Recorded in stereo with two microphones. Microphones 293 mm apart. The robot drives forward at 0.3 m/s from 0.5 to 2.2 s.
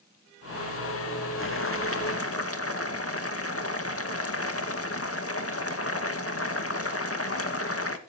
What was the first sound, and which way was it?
Boiling, 45° left (ahead or behind).